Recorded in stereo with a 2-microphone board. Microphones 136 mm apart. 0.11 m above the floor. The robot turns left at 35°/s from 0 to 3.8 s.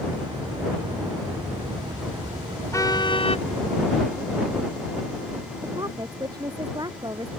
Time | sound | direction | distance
2.7 | a car horn | 20° left (ahead or behind) | ?
5.6 | a woman speaking | 30° right (ahead or behind) | ?